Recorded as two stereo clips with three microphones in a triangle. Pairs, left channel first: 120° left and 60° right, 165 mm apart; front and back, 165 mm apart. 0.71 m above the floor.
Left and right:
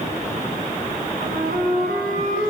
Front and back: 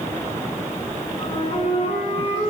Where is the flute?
50° right, 4.5 m.